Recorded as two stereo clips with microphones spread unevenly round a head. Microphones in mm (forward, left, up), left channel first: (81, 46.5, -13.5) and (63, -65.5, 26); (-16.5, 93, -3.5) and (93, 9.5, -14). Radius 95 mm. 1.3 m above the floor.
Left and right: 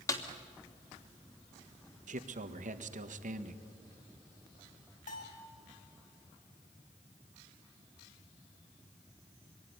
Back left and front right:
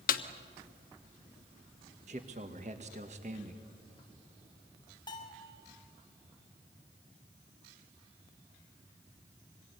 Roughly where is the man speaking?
Right.